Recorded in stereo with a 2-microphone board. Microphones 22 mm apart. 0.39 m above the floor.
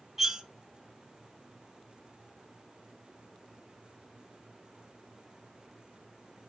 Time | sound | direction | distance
0.2 | cutlery clinking | 25° right (ahead or behind) | 0.8 m